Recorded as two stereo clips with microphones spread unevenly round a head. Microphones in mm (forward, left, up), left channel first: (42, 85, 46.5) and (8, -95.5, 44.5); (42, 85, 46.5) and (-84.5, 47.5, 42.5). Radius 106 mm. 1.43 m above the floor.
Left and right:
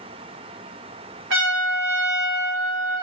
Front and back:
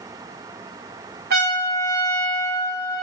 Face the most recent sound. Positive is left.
turn(degrees=-130)